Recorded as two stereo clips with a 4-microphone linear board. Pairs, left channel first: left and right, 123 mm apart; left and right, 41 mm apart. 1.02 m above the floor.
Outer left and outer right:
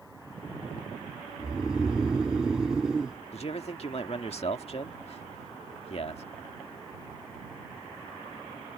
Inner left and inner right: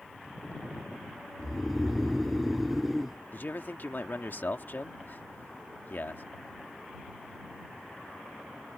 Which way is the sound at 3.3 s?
55° left (ahead or behind).